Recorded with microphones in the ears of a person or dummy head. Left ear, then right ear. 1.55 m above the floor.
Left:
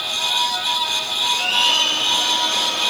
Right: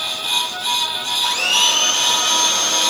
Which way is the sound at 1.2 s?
50° right (ahead or behind).